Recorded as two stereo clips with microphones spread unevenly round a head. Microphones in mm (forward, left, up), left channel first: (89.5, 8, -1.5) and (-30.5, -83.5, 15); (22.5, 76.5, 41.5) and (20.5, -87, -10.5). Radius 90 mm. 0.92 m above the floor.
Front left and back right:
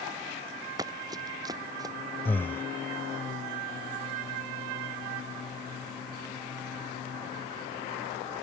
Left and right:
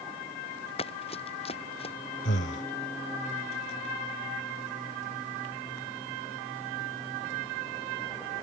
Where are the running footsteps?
145° left.